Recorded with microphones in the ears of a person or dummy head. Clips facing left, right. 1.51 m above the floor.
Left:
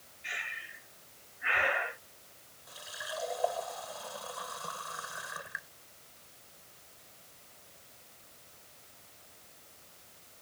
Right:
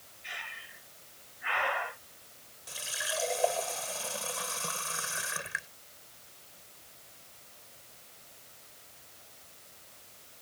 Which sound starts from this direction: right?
A running tap, at 2.7 s.